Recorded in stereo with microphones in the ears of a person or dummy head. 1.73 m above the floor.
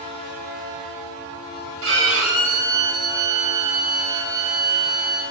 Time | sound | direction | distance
1.8 | a violin | 80° right | 4 m